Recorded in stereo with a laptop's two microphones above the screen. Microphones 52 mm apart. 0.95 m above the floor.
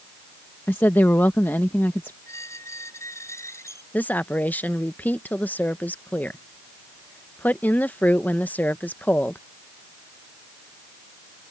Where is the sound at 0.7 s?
45° left (ahead or behind).